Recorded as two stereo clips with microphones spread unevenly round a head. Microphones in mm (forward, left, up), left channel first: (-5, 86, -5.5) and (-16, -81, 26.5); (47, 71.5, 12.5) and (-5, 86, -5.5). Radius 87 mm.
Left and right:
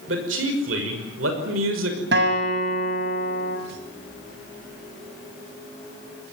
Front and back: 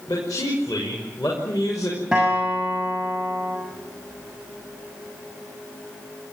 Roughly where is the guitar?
Right.